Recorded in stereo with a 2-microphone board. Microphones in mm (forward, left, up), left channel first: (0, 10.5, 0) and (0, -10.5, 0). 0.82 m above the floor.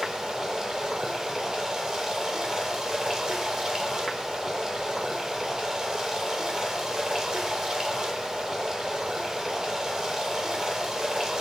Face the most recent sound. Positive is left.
turn(degrees=-30)  # may be behind; listen again after turning